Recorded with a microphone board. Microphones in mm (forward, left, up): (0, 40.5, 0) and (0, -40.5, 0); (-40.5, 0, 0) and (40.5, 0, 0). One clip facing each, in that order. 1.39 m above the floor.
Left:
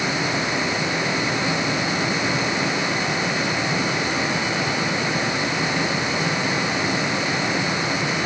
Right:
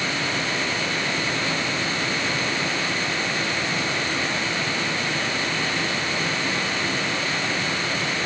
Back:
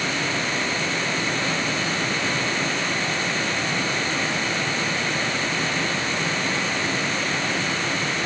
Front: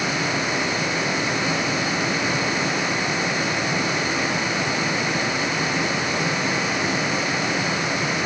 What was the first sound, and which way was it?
Only background noise.